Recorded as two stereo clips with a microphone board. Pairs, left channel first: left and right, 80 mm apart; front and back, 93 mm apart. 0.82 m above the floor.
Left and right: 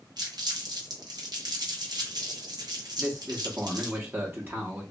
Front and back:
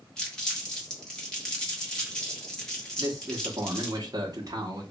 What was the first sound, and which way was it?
Crumpling, 80° right.